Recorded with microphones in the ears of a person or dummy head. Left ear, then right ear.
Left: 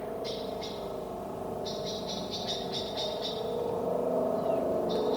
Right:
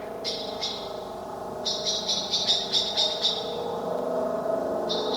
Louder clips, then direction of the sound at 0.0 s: Right 3 dB; 55° right (ahead or behind).